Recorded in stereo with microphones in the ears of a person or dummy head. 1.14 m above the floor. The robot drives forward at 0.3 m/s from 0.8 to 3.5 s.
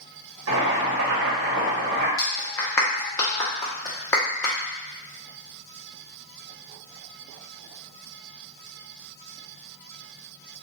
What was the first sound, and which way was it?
Boiling, 80° right.